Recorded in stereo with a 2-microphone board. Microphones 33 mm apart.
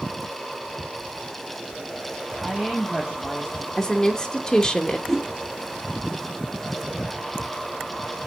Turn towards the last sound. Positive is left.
turn(degrees=5)  # may be behind; listen again after turning